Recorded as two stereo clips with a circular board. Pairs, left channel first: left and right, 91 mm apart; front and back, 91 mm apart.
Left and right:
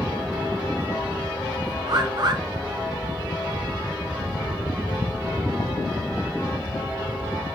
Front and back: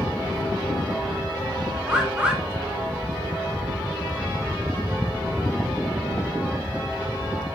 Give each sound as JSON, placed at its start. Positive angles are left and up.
{"t": 1.9, "sound": "a bird", "azimuth_deg": -105, "distance_m": 0.8}